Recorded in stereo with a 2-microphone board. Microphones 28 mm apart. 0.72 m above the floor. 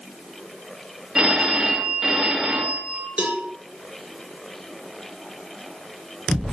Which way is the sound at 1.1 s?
30° right (ahead or behind).